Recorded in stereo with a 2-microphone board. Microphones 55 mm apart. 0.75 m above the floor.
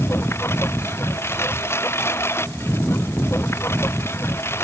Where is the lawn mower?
50° left (ahead or behind).